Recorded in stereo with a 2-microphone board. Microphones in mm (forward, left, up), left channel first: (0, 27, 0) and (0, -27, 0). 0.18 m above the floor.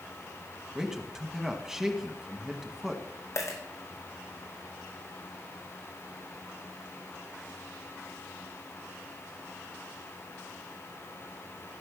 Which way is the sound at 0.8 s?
10° right (ahead or behind).